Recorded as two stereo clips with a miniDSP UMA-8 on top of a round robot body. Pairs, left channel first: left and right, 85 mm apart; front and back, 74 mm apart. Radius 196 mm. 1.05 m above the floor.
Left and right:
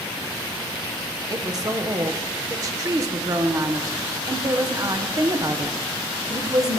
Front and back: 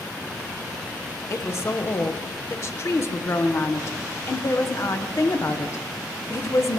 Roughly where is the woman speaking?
Ahead right.